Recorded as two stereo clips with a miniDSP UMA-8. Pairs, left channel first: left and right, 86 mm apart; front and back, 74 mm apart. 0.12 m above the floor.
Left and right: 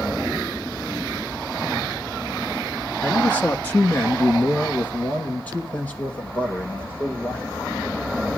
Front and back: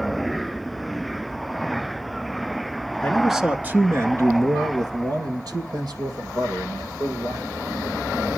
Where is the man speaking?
55° left, 1.5 m; by 8.1 s 165° left, 7.5 m.